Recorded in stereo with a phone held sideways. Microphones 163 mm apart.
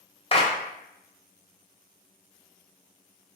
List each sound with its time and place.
0.3 s a clap: 35° left (ahead or behind), 0.6 m